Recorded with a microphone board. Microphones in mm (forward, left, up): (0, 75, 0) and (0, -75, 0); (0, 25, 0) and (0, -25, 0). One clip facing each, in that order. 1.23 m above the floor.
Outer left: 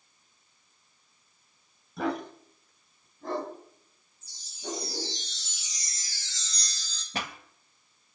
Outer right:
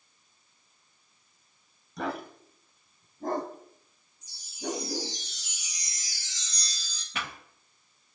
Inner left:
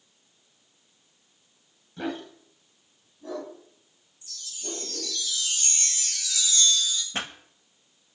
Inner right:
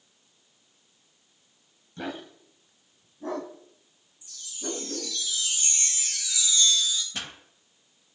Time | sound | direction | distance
2.0 | a dog barking | 5° left (ahead or behind) | 1.6 m
4.2 | a chime | 15° right (ahead or behind) | 5 m
7.1 | a pop | 40° left (ahead or behind) | 1.9 m